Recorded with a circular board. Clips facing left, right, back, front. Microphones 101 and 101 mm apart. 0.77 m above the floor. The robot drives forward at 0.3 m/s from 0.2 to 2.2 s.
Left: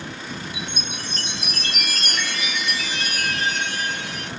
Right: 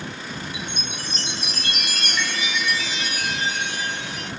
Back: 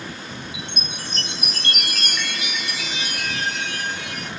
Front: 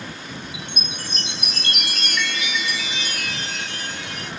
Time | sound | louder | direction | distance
0.5 | a chime | even, even | 120° left | 1.2 m